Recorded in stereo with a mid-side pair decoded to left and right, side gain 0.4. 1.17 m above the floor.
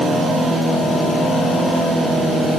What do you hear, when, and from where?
Only background noise.